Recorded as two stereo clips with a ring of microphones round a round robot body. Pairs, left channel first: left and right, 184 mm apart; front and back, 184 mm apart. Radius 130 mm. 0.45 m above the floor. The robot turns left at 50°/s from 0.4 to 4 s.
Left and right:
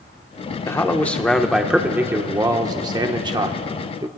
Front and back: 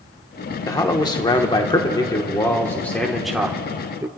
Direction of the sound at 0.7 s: 40° left.